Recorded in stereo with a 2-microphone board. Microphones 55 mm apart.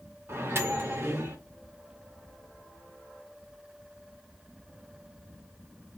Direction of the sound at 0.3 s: 50° right (ahead or behind).